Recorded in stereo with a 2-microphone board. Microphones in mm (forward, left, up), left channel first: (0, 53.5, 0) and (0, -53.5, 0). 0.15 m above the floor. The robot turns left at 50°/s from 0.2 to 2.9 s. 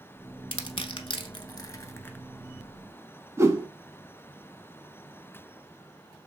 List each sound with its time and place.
0.5 s crushing: 55° left (ahead or behind), 0.5 m; by 2.2 s 20° left (ahead or behind), 0.5 m
3.4 s a whoosh: 25° right (ahead or behind), 0.5 m